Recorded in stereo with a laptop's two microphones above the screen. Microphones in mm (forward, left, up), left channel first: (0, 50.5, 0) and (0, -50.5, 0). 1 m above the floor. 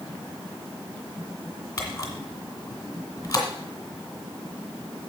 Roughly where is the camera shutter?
Left.